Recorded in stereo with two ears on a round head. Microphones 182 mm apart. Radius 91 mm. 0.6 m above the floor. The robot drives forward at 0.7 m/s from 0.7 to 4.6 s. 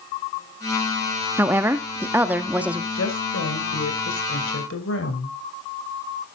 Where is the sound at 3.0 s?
70° left (ahead or behind), 3 m; by 5.3 s 65° left (ahead or behind), 3 m.